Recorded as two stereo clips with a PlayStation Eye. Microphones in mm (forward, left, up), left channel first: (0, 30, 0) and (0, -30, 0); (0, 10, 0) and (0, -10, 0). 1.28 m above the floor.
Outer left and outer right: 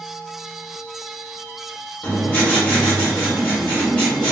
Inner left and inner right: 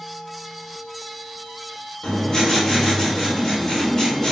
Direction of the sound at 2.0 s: 25° left (ahead or behind).